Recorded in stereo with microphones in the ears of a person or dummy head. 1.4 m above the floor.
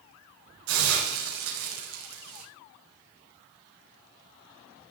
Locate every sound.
0.7 s a hiss: 75° right (ahead or behind), 6 m